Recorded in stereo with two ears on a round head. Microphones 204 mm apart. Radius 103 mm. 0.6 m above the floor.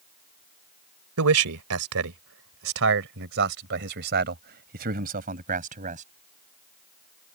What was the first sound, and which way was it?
A man speaking, 70° right (ahead or behind).